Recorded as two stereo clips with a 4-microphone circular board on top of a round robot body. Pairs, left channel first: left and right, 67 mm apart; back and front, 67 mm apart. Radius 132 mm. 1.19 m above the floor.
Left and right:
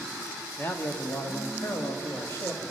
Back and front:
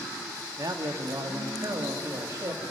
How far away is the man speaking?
About 1.4 m.